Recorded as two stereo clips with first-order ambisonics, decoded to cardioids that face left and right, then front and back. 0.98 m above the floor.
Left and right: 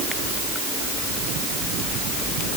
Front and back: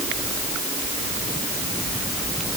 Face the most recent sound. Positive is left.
No sound to turn to.